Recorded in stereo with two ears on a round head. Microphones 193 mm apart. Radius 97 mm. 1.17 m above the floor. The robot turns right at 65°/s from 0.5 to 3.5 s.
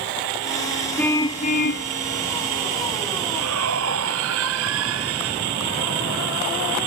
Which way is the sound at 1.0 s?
5° left.